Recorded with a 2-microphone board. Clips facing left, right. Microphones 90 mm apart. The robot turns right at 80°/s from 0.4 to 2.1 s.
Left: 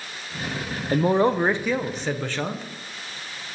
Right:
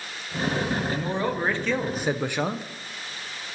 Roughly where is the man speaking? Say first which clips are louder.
Left 7 dB; left.